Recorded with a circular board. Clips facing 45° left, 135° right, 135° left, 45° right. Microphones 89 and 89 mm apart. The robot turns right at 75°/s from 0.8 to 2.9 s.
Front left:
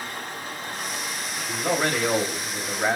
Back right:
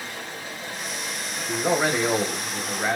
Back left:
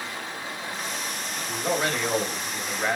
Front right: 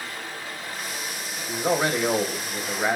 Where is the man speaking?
105° right, 1.0 m; by 3.0 s 5° left, 1.0 m.